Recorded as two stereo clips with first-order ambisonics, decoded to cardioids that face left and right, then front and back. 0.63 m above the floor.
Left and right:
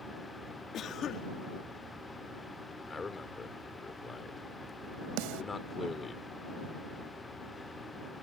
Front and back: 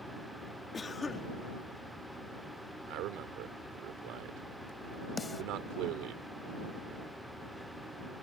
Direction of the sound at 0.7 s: 65° left.